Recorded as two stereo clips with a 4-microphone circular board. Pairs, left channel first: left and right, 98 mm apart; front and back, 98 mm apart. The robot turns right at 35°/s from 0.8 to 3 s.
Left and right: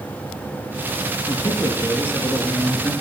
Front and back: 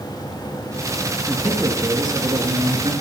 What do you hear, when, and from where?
1.3 s a man speaking: 120° left, 3 m; by 2.9 s straight behind, 3 m